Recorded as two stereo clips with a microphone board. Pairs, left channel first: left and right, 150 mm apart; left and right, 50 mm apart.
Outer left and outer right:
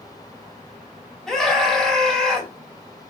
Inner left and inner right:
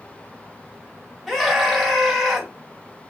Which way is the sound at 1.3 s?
5° left (ahead or behind).